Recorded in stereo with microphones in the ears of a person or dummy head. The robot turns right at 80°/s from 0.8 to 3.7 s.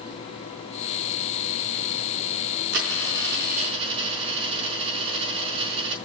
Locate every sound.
2.7 s a dropped coin: 115° right, 4.5 m; by 6.0 s 40° right, 4.5 m